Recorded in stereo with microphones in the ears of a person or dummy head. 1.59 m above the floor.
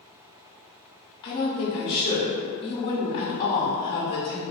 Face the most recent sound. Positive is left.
turn(degrees=20)  # may be behind; listen again after turning